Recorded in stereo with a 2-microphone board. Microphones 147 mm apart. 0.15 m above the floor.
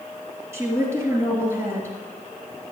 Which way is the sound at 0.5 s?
20° right (ahead or behind).